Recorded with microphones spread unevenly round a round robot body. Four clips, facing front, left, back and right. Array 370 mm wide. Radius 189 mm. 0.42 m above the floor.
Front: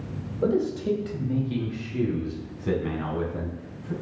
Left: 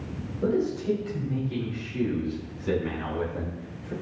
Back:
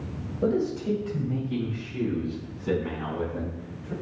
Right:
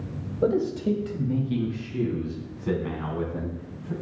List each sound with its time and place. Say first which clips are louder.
0.4 s a man speaking: right 2 dB, front 1 dB; 75° right, 3 m; by 3.9 s 15° right, 6.5 m